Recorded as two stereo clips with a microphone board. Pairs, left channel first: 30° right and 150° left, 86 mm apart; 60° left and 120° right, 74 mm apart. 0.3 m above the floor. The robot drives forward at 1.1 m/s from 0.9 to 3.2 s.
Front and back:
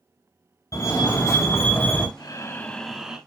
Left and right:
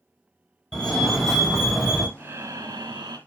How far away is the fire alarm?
About 2.5 m.